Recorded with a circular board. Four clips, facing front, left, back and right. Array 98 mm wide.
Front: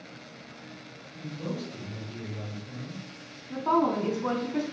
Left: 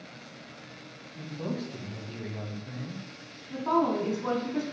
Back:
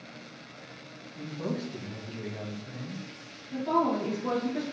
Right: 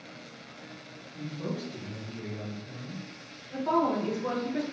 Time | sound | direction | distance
1.2 | a man speaking | 135° left | 2.0 m
3.5 | a woman speaking | 20° left | 2.5 m